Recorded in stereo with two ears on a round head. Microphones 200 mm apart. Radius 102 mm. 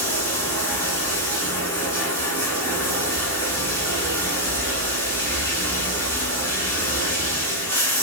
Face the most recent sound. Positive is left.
turn(degrees=10)  # may be behind; listen again after turning